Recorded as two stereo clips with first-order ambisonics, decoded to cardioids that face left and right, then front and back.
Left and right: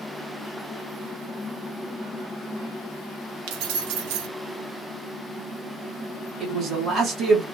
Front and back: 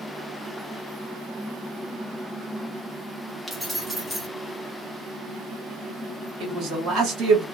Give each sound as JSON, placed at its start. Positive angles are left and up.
{"t": 3.5, "sound": "keys jangling", "azimuth_deg": -95, "distance_m": 0.7}
{"t": 6.4, "sound": "a man speaking", "azimuth_deg": -145, "distance_m": 1.6}